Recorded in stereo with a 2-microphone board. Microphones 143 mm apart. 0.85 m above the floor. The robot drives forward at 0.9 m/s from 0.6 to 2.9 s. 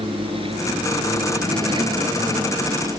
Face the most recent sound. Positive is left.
turn(degrees=-30)  # may be behind; listen again after turning